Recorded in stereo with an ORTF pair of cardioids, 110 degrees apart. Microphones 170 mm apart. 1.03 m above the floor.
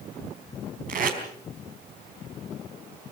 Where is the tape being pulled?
55° right, 4 m.